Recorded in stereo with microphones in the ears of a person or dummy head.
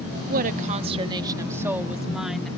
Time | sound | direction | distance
0.3 | a woman speaking | 50° right (ahead or behind) | ?